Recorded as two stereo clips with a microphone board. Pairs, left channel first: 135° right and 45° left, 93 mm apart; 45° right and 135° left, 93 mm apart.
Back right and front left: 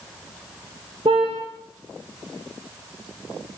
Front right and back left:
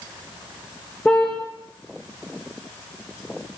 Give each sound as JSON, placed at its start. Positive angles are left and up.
{"t": 1.1, "sound": "a car horn", "azimuth_deg": 35, "distance_m": 6.0}